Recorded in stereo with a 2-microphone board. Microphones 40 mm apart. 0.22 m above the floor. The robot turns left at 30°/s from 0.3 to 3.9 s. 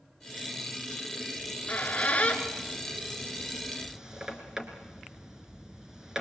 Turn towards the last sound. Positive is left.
turn(degrees=-15)  # may be behind; listen again after turning